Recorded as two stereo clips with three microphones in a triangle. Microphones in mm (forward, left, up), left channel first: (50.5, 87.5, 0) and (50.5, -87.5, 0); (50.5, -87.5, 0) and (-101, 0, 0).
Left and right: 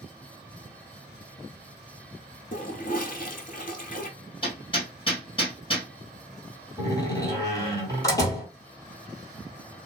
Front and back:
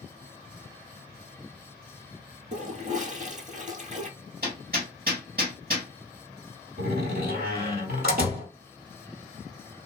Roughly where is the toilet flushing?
Behind left.